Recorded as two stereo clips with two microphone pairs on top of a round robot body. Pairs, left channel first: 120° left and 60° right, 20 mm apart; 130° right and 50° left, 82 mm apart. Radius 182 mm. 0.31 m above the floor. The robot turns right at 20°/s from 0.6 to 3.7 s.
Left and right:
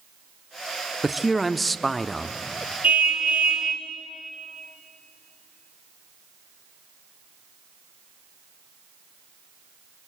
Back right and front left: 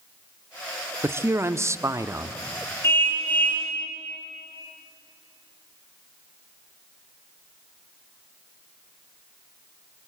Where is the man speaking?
20° left, 1.1 m; by 2.4 s 45° left, 1.1 m.